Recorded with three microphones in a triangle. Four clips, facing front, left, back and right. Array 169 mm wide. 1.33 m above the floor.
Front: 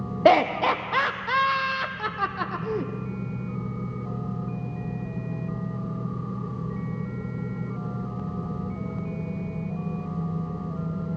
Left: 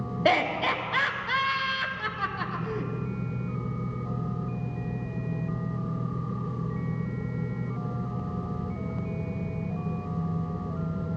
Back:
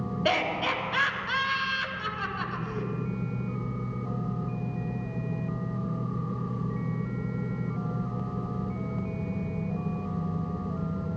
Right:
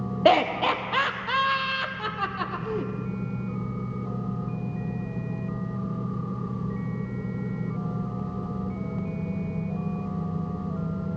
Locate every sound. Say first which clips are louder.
0.2 s laughter: right 5 dB, front 10 dB; 25° right, 0.9 m